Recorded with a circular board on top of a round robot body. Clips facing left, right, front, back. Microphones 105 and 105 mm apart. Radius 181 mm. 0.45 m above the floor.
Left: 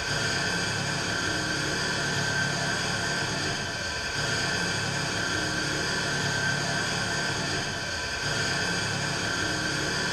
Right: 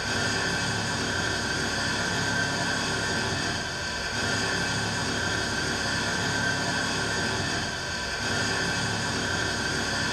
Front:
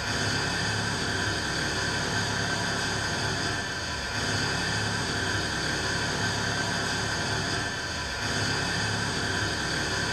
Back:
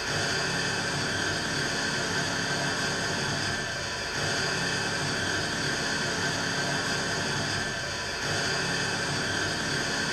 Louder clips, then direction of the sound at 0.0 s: Right 1 dB, even; 75° right.